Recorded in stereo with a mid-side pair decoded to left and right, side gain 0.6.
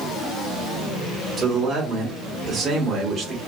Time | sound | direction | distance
1.4 | a man speaking | 35° right | 1.3 m